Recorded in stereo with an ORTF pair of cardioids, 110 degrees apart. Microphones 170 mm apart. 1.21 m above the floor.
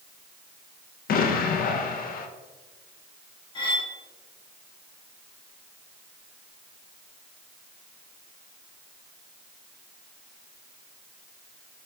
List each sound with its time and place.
1.1 s an explosion: 60° left, 0.7 m
3.5 s cutlery clinking: 30° left, 1.3 m